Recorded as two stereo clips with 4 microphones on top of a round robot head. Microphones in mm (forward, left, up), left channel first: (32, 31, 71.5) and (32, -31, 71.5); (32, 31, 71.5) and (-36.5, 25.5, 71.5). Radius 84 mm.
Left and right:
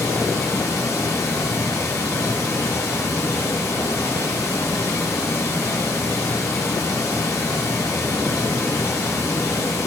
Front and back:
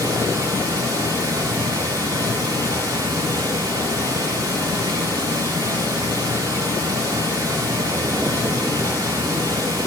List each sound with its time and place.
0.0 s running water: 150° left, 2.5 m